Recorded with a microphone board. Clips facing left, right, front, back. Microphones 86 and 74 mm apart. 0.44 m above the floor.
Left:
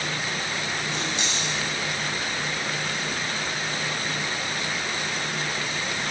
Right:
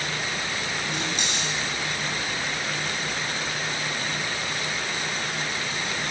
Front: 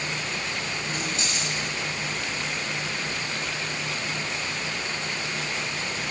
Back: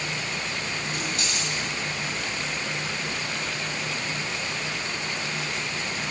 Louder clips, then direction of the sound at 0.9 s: Even, even; 60° right.